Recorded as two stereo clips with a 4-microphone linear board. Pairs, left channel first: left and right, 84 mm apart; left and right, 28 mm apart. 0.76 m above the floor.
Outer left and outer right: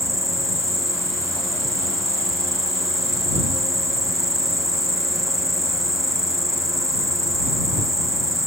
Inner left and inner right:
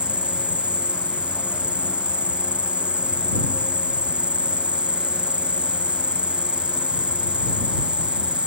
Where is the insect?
40° right (ahead or behind).